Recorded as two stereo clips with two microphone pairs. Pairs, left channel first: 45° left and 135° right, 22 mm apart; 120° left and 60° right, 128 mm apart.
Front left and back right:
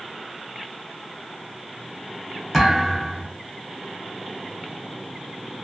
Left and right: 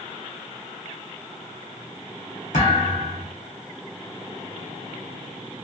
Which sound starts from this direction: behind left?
A thud, at 2.5 s.